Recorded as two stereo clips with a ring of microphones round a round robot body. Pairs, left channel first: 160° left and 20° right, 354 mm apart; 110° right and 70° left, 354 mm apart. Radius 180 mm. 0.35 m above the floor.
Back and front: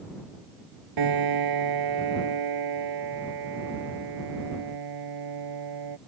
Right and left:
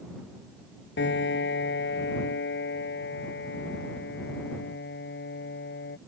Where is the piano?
50° right.